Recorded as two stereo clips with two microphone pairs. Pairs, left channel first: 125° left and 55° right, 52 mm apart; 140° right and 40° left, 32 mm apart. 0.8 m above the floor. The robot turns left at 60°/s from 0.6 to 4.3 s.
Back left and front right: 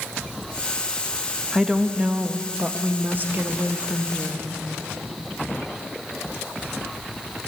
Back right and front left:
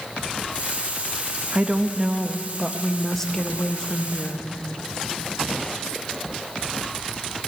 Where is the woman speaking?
35° left, 0.6 m; by 4.5 s 135° right, 0.6 m.